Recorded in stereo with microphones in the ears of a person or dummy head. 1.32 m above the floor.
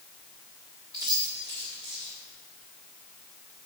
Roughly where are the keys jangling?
Centre.